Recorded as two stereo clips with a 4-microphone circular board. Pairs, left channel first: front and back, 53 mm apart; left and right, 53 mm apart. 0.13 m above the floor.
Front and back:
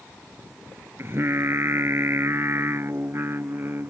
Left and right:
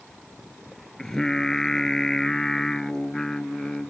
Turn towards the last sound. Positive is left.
turn(degrees=170)